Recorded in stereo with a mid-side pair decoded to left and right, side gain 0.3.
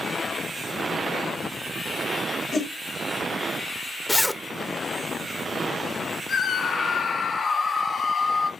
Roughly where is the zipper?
Ahead.